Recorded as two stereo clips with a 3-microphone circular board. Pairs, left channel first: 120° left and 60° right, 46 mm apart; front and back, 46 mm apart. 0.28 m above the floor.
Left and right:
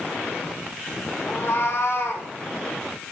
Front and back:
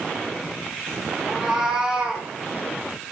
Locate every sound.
1.3 s a cat meowing: 100° left, 4 m; by 2.3 s 105° left, 4.5 m